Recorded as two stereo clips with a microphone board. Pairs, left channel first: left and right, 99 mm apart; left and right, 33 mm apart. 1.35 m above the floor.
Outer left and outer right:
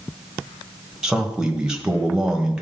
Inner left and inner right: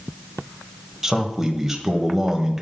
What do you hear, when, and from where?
1.0 s a man speaking: 10° right (ahead or behind), 1.4 m